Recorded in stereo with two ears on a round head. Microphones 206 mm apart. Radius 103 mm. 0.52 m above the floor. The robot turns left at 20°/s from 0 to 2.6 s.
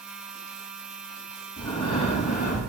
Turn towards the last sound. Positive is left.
turn(degrees=40)  # may be behind; listen again after turning